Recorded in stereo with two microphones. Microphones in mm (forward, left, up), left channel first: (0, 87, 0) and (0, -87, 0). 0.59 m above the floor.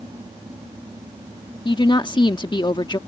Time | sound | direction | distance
1.6 | a woman speaking | 25° left (ahead or behind) | ?